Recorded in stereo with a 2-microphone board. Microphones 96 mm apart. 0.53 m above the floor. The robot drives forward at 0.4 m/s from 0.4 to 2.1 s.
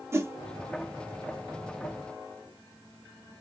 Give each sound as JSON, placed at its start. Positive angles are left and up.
{"t": 0.1, "sound": "a whoosh", "side_deg": -25, "distance_m": 0.7}